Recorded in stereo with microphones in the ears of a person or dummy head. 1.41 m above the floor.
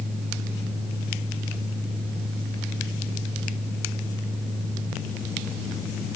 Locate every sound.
Only background noise.